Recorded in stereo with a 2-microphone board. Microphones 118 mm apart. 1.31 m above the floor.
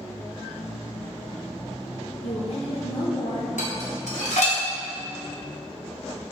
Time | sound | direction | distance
2.2 | a woman speaking | 60° left (ahead or behind) | 1.0 m
3.6 | dishes clattering | 80° left | 1.8 m